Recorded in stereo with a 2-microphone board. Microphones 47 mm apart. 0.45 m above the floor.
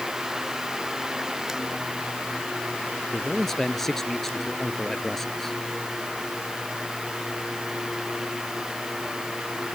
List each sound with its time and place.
3.1 s a man speaking: 5° left (ahead or behind)